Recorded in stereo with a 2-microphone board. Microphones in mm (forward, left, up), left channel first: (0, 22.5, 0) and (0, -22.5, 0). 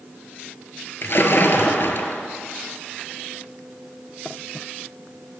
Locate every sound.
1.0 s a splash: 55° left (ahead or behind), 0.6 m